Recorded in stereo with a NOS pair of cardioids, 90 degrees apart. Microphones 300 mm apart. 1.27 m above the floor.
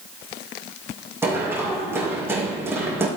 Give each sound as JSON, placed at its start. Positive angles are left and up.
{"t": 1.2, "sound": "running footsteps", "azimuth_deg": -10, "distance_m": 4.5}